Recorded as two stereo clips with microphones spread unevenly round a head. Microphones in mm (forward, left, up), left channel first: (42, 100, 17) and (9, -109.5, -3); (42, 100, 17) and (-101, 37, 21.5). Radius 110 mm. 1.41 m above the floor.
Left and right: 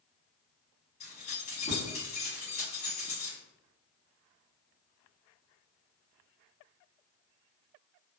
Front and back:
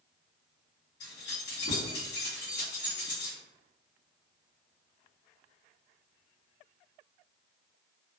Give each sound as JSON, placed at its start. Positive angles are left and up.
{"t": 1.0, "sound": "keys jangling", "azimuth_deg": 25, "distance_m": 1.4}